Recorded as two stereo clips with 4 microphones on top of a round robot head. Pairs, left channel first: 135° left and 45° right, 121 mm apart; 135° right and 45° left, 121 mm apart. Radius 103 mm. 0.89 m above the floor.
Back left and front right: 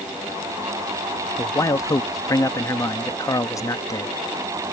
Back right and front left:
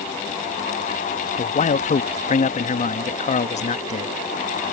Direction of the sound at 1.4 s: 160° right.